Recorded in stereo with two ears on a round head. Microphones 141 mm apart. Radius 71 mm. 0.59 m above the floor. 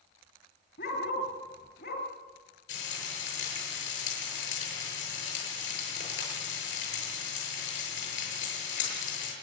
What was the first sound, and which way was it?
A dog barking, 65° left (ahead or behind).